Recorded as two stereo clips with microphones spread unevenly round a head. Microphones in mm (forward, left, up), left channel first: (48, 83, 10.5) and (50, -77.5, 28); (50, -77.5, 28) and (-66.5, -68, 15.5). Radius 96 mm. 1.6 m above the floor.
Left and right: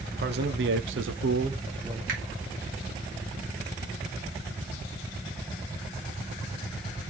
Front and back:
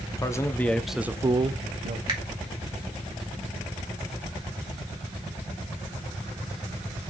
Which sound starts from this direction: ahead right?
A man speaking, at 0.2 s.